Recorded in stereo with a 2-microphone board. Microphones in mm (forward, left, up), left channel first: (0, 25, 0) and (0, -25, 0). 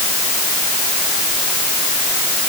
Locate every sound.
Only background noise.